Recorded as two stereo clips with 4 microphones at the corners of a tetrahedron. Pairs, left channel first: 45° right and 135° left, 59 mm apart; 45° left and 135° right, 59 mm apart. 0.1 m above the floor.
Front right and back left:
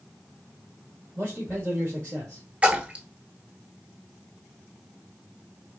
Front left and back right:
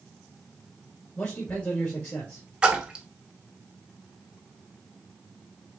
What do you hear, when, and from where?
1.1 s a man speaking: 90° left, 2 m
2.6 s a splash: 175° left, 0.8 m